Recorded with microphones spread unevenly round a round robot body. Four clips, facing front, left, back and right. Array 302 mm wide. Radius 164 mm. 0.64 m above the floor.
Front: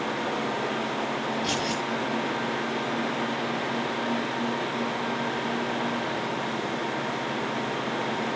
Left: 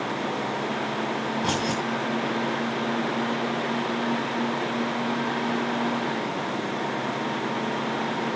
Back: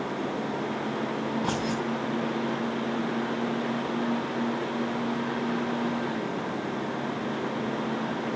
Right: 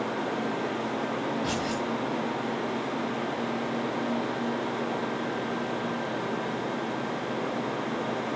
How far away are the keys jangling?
About 4 m.